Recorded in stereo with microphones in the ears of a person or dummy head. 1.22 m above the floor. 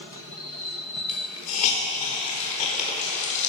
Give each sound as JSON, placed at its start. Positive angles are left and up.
{"t": 1.1, "sound": "a hiss", "side_deg": 35, "distance_m": 4.5}